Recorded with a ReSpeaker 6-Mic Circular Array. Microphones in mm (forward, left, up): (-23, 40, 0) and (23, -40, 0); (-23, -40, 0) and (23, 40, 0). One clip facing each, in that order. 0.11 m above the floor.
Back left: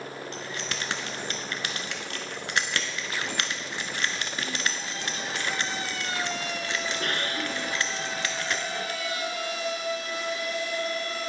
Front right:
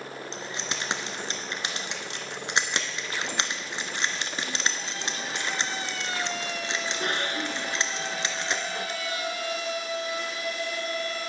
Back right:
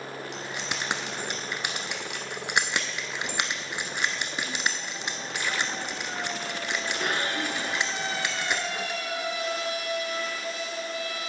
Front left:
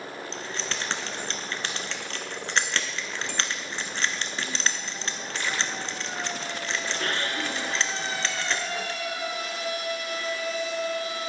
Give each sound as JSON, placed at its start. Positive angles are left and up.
{"t": 0.3, "sound": "keys jangling", "azimuth_deg": -70, "distance_m": 0.9}